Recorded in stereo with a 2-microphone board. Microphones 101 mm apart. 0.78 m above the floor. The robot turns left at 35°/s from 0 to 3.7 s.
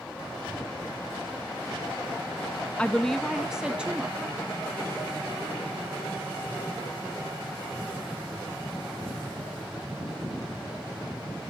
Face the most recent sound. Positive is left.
turn(degrees=-15)